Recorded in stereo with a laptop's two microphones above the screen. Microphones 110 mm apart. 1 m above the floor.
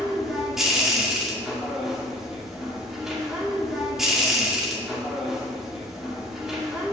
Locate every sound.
0.0 s a machine running: 5° right (ahead or behind), 2 m